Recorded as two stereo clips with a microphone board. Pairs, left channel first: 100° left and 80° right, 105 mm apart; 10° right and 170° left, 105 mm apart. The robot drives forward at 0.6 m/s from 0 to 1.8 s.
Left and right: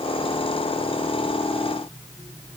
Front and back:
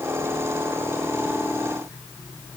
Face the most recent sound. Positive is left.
No sound to turn to.